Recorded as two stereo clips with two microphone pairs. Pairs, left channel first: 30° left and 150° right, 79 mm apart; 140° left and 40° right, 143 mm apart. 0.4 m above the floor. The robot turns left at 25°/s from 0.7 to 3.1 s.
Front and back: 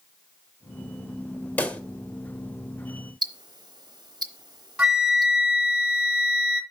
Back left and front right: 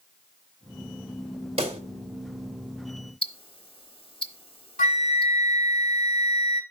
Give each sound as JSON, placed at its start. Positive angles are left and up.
{"t": 1.6, "sound": "a pop", "azimuth_deg": -25, "distance_m": 0.9}
{"t": 3.2, "sound": "ticking", "azimuth_deg": -170, "distance_m": 0.8}
{"t": 4.8, "sound": "a flute", "azimuth_deg": 130, "distance_m": 1.3}